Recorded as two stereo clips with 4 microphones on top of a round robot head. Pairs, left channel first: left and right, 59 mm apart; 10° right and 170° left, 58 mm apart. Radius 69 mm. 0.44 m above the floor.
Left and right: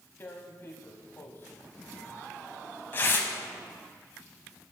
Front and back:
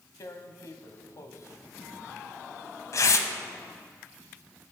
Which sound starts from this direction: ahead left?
Tearing paper, at 0.2 s.